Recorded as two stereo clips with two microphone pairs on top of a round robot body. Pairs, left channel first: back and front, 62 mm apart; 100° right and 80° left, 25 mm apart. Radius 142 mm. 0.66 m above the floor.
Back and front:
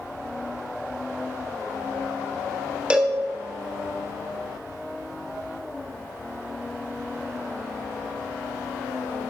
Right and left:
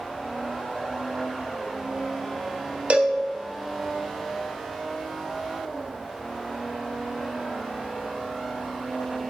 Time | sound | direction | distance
2.9 | a cowbell | 80° left | 1.7 m